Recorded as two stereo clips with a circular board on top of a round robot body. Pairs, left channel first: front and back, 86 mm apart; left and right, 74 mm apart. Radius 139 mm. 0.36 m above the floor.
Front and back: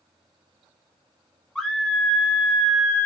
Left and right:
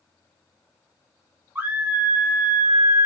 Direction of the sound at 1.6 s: 80° right.